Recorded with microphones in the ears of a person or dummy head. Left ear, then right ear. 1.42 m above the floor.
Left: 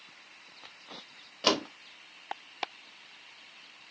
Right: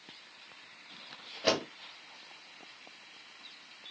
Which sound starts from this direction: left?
A door slam, at 1.4 s.